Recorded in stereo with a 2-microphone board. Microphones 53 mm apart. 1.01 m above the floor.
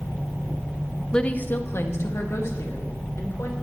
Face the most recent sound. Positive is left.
turn(degrees=60)  # may be behind; listen again after turning